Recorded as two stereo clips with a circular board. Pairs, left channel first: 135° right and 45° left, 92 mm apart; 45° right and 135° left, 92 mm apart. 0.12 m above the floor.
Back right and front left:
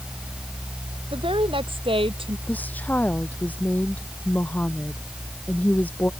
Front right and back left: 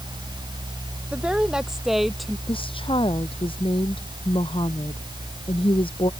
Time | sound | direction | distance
1.1 | a woman speaking | 55° left | ?
2.5 | a woman speaking | 65° right | ?